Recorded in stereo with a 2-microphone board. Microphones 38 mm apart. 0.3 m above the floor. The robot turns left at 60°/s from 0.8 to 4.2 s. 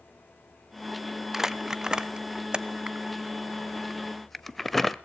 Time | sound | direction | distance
1.3 | crumpling | 10° right (ahead or behind) | 0.7 m